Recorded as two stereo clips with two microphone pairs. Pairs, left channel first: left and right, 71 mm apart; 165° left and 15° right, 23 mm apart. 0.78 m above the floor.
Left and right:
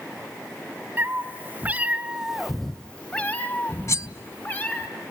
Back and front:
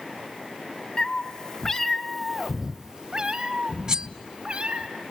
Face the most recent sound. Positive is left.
turn(degrees=45)